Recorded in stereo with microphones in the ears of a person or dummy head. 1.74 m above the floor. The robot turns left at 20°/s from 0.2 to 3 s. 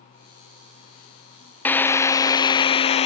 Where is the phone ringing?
I don't hear a phone ringing.